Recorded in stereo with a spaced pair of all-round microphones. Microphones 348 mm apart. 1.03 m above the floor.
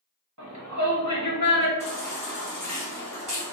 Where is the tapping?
No tapping in this recording.